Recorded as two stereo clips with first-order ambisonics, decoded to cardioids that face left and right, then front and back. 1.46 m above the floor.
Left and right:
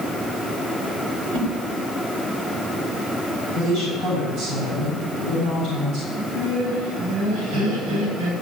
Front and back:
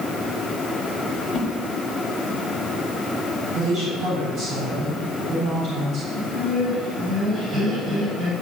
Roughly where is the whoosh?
Right.